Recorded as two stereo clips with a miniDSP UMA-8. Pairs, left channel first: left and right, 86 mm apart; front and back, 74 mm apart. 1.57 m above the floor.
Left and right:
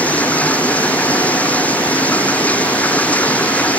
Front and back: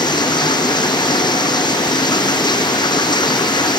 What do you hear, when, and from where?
0.0 s running water: 15° left